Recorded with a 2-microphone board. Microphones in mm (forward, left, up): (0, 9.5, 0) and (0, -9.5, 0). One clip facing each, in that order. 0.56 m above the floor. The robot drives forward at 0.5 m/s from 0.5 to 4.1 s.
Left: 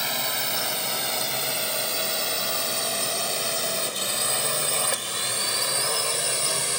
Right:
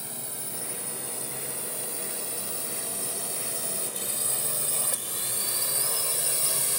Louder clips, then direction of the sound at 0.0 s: Left 14 dB; 70° left (ahead or behind).